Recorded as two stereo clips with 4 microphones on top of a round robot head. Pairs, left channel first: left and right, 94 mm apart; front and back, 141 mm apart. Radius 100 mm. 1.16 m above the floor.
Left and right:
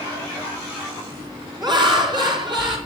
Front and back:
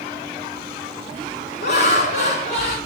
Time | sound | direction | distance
1.6 | laughter | 50° right | 4 m